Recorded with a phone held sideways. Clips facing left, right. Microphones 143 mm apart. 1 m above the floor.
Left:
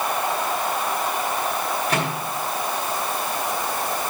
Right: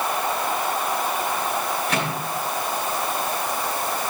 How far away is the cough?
I don't hear a cough.